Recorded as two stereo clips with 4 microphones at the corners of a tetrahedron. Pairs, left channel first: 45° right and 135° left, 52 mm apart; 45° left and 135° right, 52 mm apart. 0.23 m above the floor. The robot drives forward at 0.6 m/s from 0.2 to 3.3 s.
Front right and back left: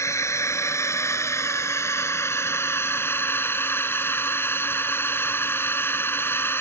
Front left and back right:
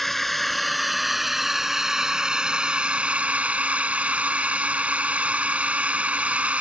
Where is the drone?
40° right; by 6.6 s 75° right.